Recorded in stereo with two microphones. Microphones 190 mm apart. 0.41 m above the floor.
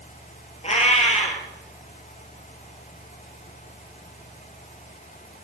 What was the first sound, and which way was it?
A cat meowing, 35° left (ahead or behind).